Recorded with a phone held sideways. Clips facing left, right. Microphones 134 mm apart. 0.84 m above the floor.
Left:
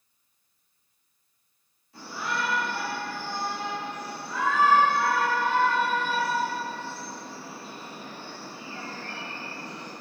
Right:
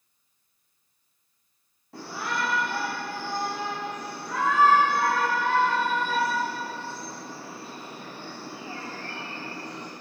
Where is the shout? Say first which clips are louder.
Right 1 dB; 70° right (ahead or behind), 2.5 m.